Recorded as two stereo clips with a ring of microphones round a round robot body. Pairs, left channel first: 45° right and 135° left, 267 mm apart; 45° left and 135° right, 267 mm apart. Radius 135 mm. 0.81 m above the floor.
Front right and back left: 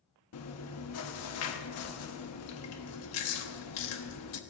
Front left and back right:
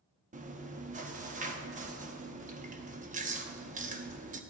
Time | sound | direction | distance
0.3 | chewing | 75° right | 1.0 m